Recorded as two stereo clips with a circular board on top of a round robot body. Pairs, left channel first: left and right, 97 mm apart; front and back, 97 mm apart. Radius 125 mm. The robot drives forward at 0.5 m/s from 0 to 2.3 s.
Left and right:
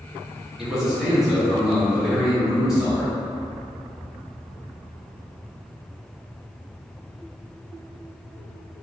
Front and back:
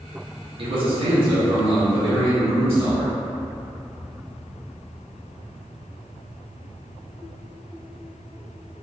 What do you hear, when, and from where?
0.6 s a man speaking: 175° right, 1.2 m